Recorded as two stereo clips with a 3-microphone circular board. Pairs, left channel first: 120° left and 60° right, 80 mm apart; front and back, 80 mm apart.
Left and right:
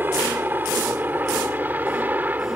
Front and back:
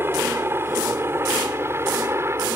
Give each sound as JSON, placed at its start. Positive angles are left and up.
{"t": 0.0, "sound": "a helicopter", "azimuth_deg": -120}